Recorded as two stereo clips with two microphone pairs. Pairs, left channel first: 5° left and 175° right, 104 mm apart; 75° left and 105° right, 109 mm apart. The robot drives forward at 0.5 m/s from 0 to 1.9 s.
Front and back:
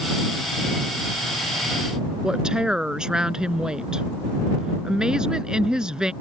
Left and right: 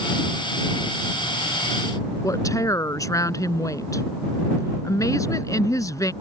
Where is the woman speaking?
110° left.